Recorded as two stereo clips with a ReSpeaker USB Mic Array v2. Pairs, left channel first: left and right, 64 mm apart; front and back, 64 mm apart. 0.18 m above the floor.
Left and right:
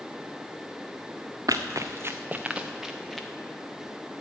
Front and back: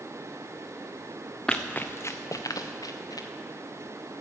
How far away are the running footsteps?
About 0.8 m.